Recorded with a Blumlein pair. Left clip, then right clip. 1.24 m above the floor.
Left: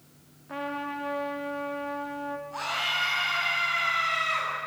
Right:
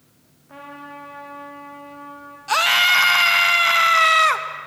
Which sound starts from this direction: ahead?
A trumpet, at 0.5 s.